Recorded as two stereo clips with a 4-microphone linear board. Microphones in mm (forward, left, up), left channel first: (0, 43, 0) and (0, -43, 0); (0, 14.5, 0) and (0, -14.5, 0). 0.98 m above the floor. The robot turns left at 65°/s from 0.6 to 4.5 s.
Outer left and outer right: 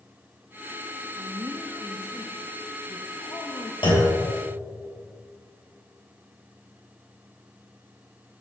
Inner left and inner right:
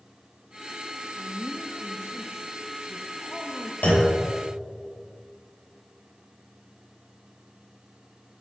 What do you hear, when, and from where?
1.1 s a woman speaking: 115° right, 0.9 m; by 3.7 s 75° left, 0.9 m
3.8 s a clunk: 75° left (ahead or behind), 2.5 m; by 4.2 s 80° left, 2.5 m